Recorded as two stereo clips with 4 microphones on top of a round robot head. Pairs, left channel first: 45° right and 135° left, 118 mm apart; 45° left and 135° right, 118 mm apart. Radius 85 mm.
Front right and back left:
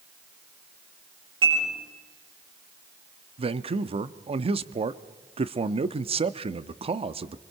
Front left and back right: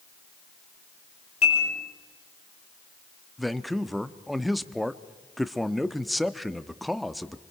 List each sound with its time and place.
1.4 s dishes clattering: 80° left, 9 m
3.4 s a man speaking: 135° left, 0.8 m